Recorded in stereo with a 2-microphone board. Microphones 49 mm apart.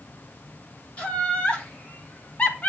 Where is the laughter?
25° left (ahead or behind), 3 m; by 2.7 s 30° left (ahead or behind), 1.9 m.